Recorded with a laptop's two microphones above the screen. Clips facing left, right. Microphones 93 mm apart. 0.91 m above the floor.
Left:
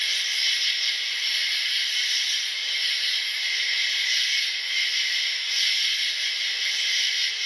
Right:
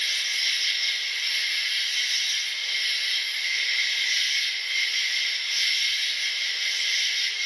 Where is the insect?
70° left (ahead or behind), 2.5 m.